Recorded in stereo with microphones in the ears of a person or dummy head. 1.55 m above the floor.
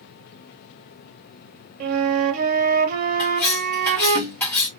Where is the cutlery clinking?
15° left (ahead or behind), 1.4 m.